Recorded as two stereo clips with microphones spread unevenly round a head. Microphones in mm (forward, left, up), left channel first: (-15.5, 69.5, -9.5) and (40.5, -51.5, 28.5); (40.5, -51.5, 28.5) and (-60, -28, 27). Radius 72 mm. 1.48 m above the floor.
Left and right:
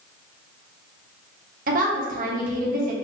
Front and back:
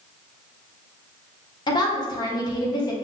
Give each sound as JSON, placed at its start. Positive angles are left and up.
{"t": 1.7, "sound": "a woman speaking", "azimuth_deg": -60, "distance_m": 1.1}